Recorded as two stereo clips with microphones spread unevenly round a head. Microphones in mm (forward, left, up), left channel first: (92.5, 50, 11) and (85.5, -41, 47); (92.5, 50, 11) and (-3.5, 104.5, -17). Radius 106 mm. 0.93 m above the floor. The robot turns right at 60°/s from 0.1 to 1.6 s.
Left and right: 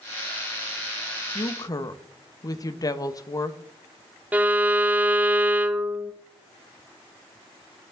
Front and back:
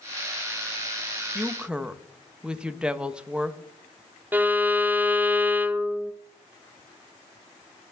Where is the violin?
165° left, 0.5 m.